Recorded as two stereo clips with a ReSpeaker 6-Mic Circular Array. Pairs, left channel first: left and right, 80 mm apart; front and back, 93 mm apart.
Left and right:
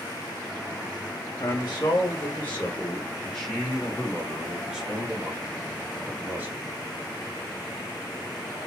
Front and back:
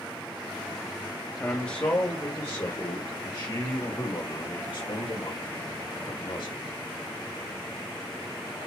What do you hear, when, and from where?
1.4 s a man speaking: 75° left, 1.3 m; by 6.6 s 25° right, 2.5 m